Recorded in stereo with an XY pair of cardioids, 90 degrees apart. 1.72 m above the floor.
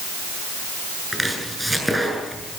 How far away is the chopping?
About 7.5 m.